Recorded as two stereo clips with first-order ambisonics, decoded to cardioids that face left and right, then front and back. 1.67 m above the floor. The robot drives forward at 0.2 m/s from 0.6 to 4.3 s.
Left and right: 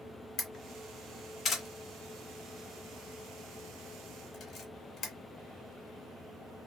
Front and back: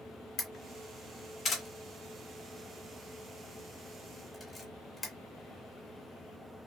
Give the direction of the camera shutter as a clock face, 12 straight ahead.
11 o'clock.